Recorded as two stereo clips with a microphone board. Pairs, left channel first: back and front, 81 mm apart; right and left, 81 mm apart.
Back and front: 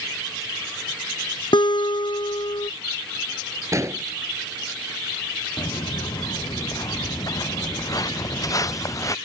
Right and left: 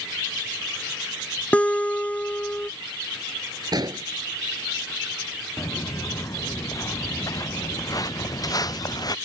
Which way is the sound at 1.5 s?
165° right.